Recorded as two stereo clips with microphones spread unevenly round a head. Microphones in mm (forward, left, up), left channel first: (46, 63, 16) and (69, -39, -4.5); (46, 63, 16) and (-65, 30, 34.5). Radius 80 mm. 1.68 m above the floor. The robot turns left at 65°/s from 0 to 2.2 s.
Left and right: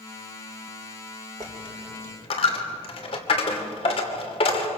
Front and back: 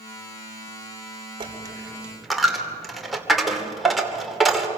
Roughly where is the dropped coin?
Behind.